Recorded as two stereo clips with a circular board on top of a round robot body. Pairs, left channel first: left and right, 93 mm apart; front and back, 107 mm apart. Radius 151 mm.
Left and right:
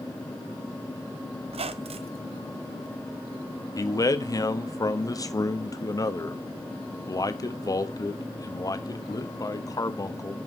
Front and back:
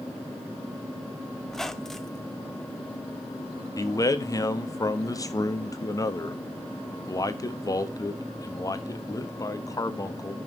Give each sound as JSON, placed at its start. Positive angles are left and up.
{"t": 1.5, "sound": "a squeak", "azimuth_deg": -85, "distance_m": 0.7}
{"t": 3.8, "sound": "a man speaking", "azimuth_deg": 50, "distance_m": 1.4}